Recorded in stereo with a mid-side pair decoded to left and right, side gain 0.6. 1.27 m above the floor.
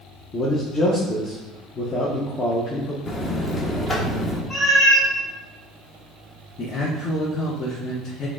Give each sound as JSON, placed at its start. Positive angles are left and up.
{"t": 0.3, "sound": "a man speaking", "azimuth_deg": 30, "distance_m": 0.8}
{"t": 3.1, "sound": "a buzzer", "azimuth_deg": 25, "distance_m": 0.8}
{"t": 4.5, "sound": "a cat meowing", "azimuth_deg": 25, "distance_m": 1.8}
{"t": 6.6, "sound": "a man speaking", "azimuth_deg": 40, "distance_m": 0.8}